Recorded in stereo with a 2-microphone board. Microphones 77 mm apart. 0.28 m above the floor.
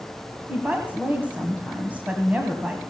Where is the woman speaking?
25° right (ahead or behind), 1.7 m.